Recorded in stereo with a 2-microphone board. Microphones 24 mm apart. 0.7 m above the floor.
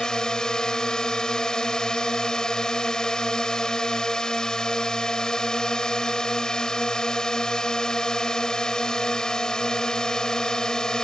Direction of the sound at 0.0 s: 30° left (ahead or behind).